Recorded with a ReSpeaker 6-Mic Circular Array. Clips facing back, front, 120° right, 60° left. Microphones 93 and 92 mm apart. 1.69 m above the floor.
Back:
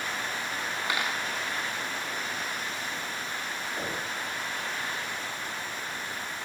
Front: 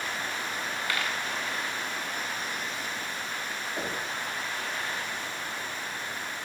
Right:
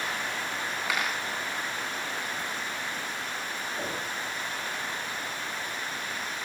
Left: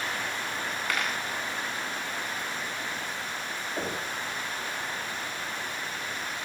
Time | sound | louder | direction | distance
0.9 | a dropped coin | back 1 dB, even | 165° left | 1.3 m
3.8 | knocking | front 1 dB, left 3 dB | 65° left | 6.5 m